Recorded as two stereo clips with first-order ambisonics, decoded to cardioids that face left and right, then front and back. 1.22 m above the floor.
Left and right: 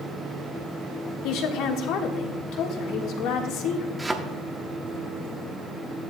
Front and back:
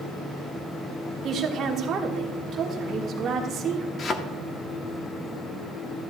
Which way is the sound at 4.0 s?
10° right.